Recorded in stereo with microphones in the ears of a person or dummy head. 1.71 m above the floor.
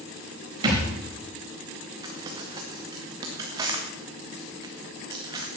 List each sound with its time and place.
0.6 s a thud: 25° right (ahead or behind), 4 m
2.0 s crumpling: 20° right (ahead or behind), 2 m